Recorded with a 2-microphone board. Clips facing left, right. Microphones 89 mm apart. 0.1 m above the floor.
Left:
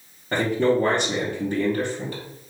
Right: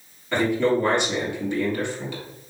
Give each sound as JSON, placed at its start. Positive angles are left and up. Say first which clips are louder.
{"t": 0.3, "sound": "a man speaking", "louder": "even", "side_deg": 45, "distance_m": 2.0}